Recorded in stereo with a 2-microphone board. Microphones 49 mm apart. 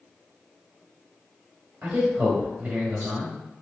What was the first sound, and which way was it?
A man speaking, 35° right (ahead or behind).